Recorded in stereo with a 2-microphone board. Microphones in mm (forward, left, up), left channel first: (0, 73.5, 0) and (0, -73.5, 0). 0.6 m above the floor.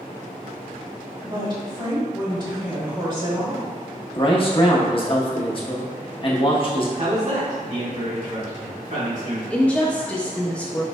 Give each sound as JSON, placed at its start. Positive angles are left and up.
{"t": 1.2, "sound": "a woman speaking", "side_deg": -30, "distance_m": 1.7}
{"t": 4.2, "sound": "a man speaking", "side_deg": 40, "distance_m": 0.7}
{"t": 7.0, "sound": "a man speaking", "side_deg": -55, "distance_m": 1.5}
{"t": 9.5, "sound": "a woman speaking", "side_deg": 10, "distance_m": 0.5}